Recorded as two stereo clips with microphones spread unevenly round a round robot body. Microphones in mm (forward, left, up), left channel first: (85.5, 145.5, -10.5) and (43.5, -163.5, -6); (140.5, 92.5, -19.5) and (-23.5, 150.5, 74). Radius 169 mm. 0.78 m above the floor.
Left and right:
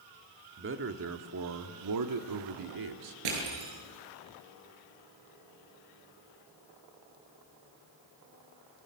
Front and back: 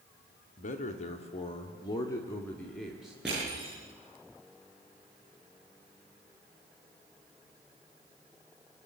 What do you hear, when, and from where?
0.6 s a man speaking: 45° right, 1.9 m; by 3.1 s 105° right, 2.0 m
3.2 s crushing: 110° right, 8.5 m